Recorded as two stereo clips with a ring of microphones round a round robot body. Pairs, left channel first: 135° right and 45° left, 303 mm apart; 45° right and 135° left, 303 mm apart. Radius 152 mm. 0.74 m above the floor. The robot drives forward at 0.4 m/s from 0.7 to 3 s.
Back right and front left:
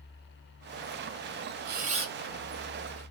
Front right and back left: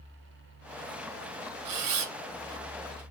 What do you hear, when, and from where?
1.6 s a camera shutter: 105° left, 0.6 m; by 3.0 s 140° left, 0.9 m